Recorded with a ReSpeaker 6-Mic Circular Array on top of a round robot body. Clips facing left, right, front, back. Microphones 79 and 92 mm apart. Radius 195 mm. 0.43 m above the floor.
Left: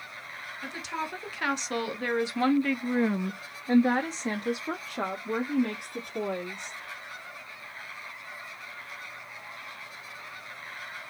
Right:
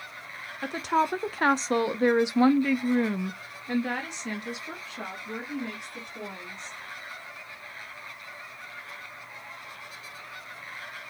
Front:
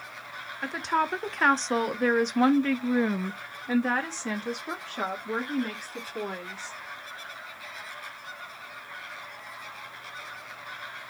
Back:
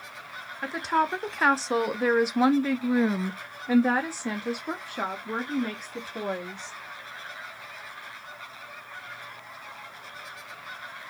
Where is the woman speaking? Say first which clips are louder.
Right 10 dB, back 2 dB; 90° right, 1.5 m; by 6.7 s 100° left, 2 m.